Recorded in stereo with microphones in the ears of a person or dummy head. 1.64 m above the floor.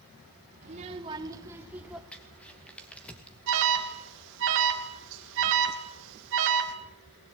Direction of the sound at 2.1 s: 5° left (ahead or behind).